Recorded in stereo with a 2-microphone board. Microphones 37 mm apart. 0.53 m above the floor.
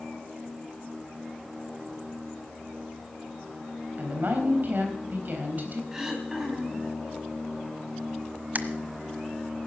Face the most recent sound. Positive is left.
turn(degrees=-45)  # may be behind; listen again after turning